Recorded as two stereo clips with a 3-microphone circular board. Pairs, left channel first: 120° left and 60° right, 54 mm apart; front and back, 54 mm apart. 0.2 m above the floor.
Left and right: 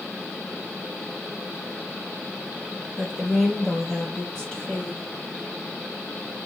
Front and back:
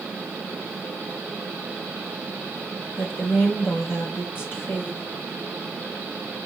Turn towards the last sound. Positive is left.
turn(degrees=55)